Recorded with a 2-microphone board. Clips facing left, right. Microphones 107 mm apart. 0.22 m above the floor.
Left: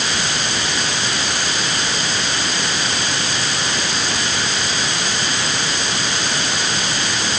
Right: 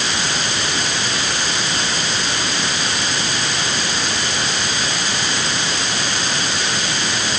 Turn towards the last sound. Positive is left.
No sound to turn to.